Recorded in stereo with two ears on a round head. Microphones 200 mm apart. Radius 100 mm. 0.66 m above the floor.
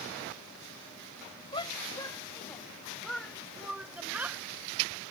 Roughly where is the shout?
Left.